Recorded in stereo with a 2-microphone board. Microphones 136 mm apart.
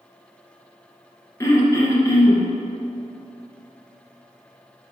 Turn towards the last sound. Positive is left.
turn(degrees=20)  # may be behind; listen again after turning